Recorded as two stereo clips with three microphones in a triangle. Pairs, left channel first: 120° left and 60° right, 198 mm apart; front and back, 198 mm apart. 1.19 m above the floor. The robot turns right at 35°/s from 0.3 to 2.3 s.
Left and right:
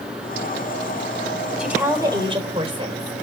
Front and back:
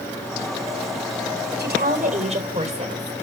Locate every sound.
1.6 s a woman speaking: 145° right, 4.5 m; by 3.1 s 120° right, 4.5 m